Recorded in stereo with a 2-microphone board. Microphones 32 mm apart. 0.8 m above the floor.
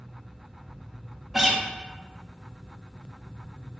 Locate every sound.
1.3 s a guitar: 10° right (ahead or behind), 0.6 m